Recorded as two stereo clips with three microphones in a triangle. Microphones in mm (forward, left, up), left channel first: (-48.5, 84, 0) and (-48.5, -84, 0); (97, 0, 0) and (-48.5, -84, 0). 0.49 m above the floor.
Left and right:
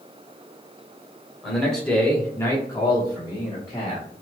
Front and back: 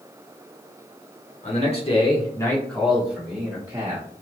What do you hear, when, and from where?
1.4 s a man speaking: straight ahead, 1.2 m; by 4.1 s 155° left, 1.5 m